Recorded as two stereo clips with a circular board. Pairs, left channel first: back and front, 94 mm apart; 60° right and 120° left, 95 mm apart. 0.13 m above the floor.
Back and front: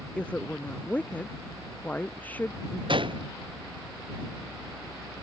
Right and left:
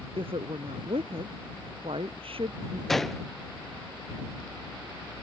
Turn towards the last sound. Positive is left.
turn(degrees=25)